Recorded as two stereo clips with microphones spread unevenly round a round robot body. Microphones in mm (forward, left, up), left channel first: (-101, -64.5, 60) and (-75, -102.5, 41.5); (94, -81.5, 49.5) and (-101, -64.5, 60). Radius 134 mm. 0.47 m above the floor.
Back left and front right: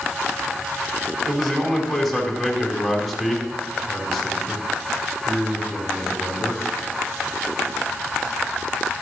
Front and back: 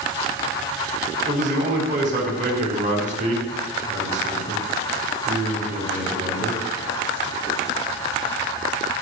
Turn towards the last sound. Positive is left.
turn(degrees=-135)